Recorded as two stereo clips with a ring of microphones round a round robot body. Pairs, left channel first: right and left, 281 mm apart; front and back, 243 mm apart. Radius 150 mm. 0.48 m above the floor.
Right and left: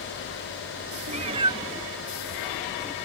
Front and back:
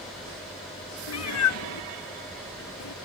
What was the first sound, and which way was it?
A cat meowing, 25° left.